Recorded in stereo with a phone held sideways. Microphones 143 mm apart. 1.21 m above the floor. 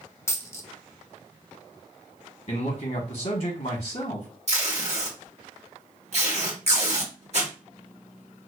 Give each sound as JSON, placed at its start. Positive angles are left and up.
{"t": 0.3, "sound": "a dropped coin", "side_deg": 20, "distance_m": 0.5}
{"t": 2.5, "sound": "a man speaking", "side_deg": 65, "distance_m": 1.0}
{"t": 4.5, "sound": "tape being pulled", "side_deg": -50, "distance_m": 1.4}